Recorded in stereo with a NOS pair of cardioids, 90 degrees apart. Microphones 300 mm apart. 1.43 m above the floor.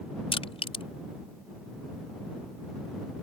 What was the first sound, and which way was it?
Crushing, 20° left.